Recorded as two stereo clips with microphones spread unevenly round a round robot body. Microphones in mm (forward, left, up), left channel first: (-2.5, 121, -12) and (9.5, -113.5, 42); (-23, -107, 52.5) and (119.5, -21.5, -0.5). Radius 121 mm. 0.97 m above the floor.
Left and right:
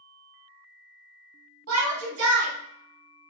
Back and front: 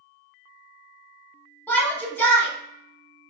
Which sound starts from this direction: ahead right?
A shout, at 1.7 s.